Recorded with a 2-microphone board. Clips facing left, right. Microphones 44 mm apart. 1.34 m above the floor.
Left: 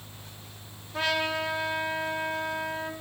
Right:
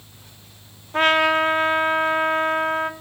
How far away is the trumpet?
About 0.7 m.